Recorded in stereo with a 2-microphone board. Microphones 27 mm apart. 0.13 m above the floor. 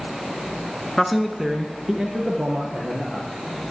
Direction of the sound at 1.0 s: 5° left (ahead or behind).